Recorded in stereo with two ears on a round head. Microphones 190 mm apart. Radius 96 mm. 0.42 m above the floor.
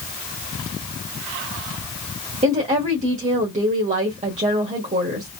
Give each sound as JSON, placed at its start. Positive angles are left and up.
{"t": 2.4, "sound": "a woman speaking", "side_deg": -30, "distance_m": 1.4}